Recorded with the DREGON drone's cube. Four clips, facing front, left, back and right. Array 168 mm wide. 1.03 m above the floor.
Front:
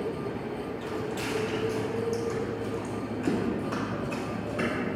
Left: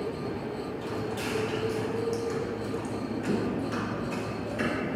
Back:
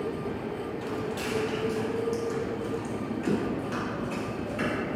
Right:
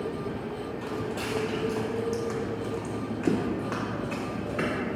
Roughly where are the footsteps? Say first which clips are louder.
Right 1 dB, even; right.